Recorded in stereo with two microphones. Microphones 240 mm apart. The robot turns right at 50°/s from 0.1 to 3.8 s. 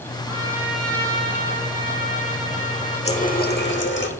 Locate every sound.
0.3 s a trumpet: 25° right, 3 m; by 4.0 s 150° left, 3 m
3.0 s a running tap: 30° left, 0.9 m; by 4.1 s 70° left, 0.9 m